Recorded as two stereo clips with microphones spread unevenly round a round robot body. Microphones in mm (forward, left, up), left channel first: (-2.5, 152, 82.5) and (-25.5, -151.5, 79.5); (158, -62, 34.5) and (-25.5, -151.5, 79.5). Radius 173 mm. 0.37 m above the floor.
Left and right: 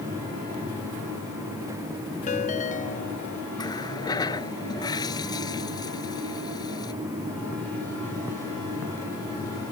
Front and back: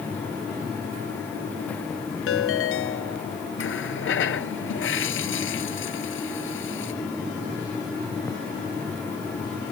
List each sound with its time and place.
2.3 s a ringtone: 20° left
3.6 s a running tap: 5° left